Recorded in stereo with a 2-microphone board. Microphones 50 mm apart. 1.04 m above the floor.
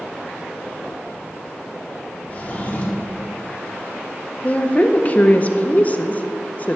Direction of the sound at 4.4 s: 35° left (ahead or behind).